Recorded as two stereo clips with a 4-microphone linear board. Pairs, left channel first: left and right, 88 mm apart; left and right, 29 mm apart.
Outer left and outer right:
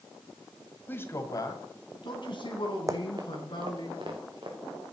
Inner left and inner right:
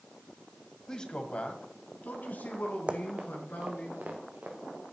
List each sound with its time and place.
0.9 s a man speaking: 20° left (ahead or behind), 1.7 m; by 3.9 s 65° left (ahead or behind), 4.5 m
2.9 s running footsteps: 40° right (ahead or behind), 0.9 m; by 4.5 s 75° right (ahead or behind), 3 m